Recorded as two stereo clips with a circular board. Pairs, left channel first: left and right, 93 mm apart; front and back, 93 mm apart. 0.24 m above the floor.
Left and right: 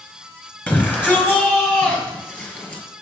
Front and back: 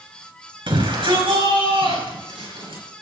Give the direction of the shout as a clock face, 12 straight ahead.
7 o'clock.